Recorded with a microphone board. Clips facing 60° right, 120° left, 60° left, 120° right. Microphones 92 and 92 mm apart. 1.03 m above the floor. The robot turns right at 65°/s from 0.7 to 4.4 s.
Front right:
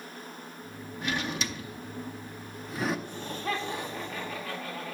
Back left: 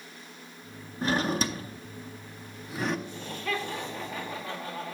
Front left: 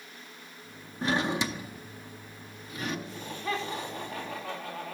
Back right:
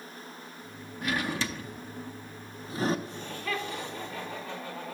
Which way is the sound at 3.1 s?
30° right.